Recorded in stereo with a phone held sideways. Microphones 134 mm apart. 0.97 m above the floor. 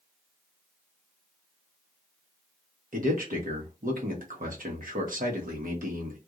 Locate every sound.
2.9 s a man speaking: 70° right (ahead or behind), 1.1 m